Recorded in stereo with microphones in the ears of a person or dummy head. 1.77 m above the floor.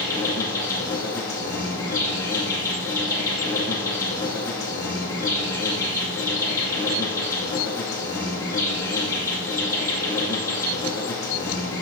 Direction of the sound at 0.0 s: 15° left (ahead or behind).